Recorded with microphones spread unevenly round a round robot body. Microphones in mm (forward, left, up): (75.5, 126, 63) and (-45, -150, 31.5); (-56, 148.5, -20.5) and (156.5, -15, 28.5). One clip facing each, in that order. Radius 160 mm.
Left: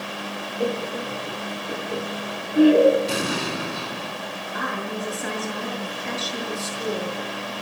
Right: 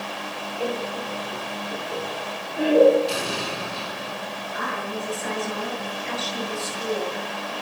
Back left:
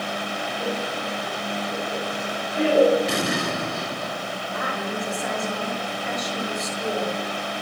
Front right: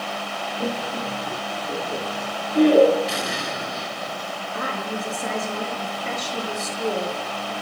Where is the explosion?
110° left, 3 m.